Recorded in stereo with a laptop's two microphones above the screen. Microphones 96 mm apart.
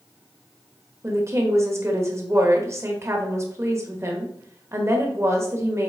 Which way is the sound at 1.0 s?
30° right (ahead or behind).